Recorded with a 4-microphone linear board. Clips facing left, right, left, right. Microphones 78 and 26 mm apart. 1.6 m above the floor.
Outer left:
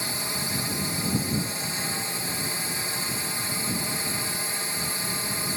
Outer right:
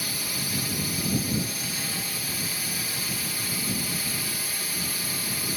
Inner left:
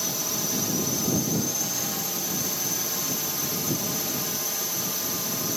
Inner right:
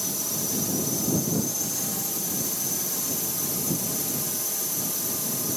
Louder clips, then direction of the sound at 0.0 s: Outer left 2 dB, inner left 2 dB; 25° left (ahead or behind).